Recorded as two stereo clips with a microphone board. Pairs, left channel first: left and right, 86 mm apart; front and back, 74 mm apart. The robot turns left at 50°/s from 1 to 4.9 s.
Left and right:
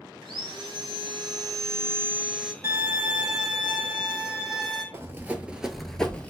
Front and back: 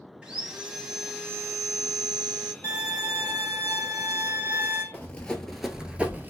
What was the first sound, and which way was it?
Sawing, 105° right.